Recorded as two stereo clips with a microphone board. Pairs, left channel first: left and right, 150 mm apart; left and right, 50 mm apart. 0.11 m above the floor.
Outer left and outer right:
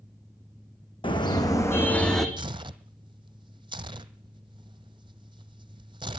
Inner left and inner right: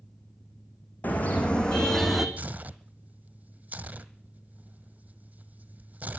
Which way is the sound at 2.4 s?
30° right (ahead or behind).